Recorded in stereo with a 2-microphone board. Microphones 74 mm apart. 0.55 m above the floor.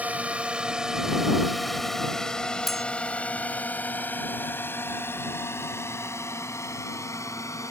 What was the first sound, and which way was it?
A drone, 20° right (ahead or behind).